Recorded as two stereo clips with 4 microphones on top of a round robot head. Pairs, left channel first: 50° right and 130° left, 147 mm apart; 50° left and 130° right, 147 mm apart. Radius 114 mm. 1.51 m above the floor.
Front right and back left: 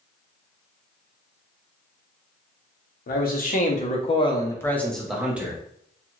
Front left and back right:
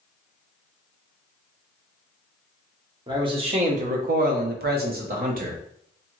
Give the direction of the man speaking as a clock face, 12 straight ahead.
2 o'clock.